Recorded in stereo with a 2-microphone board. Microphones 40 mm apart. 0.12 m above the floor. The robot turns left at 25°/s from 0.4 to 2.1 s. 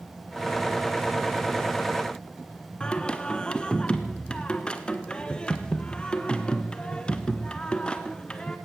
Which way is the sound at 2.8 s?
25° left (ahead or behind).